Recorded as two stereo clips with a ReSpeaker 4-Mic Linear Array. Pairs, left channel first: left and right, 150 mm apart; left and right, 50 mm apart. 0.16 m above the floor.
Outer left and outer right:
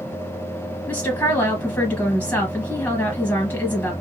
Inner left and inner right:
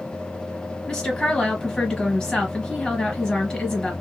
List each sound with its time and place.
0.9 s a woman speaking: 15° left (ahead or behind), 1.9 m